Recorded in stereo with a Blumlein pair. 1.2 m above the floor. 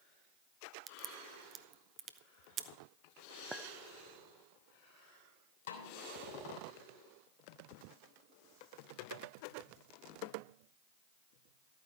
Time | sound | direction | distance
0.9 | a crack | 30° right | 0.6 m
3.5 | a clink | 10° right | 0.6 m
5.7 | a snare drum | 60° left | 3 m